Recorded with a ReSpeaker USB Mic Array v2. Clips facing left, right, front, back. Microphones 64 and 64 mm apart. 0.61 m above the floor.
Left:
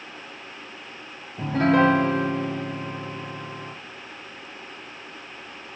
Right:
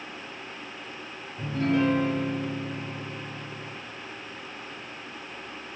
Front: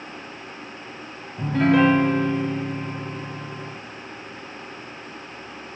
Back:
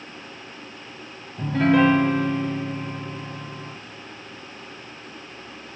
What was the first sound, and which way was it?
A piano, 90° left.